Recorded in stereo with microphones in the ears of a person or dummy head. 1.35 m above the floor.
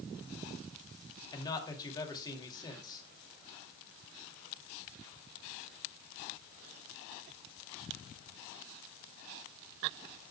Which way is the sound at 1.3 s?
25° left (ahead or behind).